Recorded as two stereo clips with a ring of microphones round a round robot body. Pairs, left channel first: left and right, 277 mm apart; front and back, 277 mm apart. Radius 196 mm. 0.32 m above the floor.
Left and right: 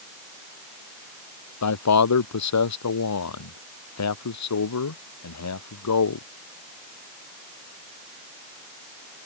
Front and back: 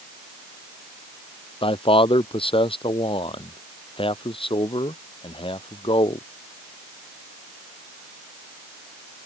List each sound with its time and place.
1.6 s a man speaking: 70° left